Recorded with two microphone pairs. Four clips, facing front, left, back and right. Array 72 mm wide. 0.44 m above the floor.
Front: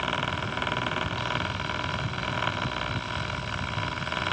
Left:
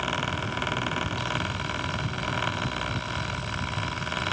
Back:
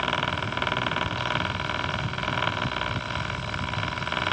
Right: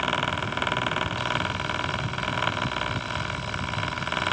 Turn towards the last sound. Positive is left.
No sound to turn to.